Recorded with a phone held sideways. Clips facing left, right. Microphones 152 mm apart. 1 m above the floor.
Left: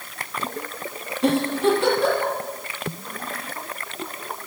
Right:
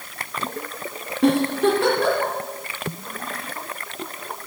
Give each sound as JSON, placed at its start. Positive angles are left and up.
{"t": 1.2, "sound": "a giggle", "side_deg": -65, "distance_m": 1.7}